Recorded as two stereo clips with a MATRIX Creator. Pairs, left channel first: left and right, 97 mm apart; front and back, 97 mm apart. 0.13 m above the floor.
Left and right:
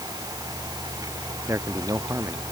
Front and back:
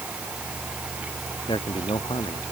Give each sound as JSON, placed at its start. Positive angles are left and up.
{"t": 1.5, "sound": "a man speaking", "azimuth_deg": -30}